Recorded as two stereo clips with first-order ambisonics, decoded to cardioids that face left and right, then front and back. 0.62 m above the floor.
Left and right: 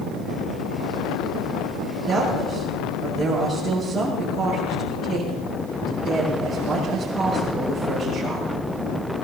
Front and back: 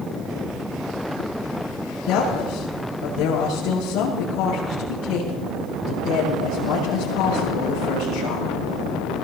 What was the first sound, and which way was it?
A woman speaking, straight ahead.